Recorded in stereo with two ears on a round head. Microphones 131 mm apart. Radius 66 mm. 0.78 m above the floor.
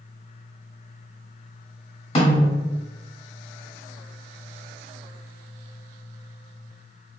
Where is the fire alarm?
I don't hear a fire alarm.